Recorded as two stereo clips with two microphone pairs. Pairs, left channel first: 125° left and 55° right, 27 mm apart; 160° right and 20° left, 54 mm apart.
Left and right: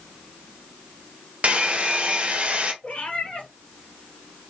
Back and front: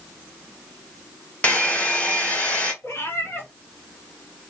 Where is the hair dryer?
95° right, 0.9 m.